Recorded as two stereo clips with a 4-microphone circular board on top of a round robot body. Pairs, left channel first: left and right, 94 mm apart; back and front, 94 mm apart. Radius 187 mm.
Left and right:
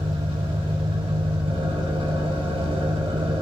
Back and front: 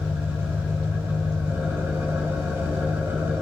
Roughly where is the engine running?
Right.